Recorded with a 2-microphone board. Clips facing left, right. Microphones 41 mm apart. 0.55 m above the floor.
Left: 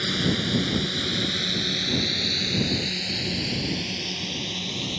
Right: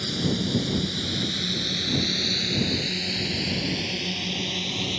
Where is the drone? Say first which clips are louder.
Left 2 dB; 40° left (ahead or behind); by 5.0 s 20° right (ahead or behind).